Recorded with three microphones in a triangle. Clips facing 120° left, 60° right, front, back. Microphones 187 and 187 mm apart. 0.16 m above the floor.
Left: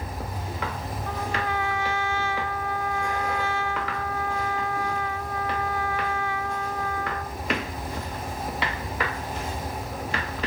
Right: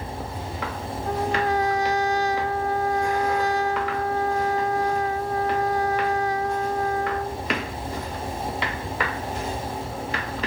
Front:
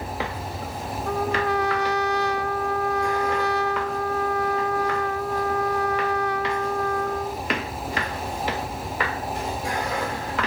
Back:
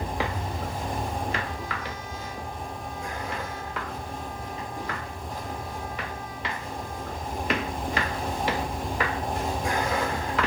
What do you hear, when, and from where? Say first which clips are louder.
1.1 s a trumpet: right 7 dB, front 7 dB; 10° right